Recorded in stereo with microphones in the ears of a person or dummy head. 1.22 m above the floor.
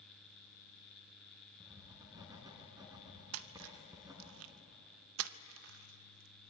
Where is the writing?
15° right (ahead or behind), 3.5 m.